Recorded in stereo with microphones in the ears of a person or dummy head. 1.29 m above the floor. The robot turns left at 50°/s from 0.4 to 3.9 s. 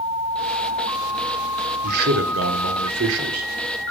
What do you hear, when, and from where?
1.8 s a man speaking: 50° right, 1.3 m; by 3.9 s 155° right, 1.3 m